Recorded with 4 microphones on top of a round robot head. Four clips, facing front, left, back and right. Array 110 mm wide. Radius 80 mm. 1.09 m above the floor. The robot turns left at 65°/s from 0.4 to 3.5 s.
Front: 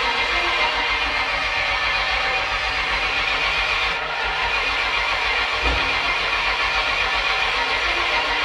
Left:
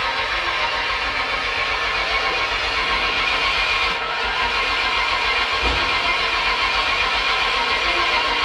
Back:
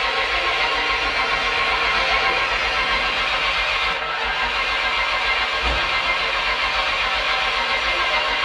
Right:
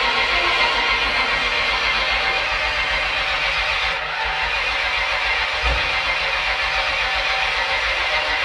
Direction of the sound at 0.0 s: 75° right.